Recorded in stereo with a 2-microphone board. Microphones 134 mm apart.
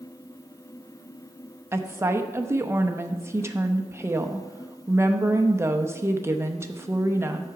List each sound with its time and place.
1.7 s a woman speaking: 20° right (ahead or behind), 0.7 m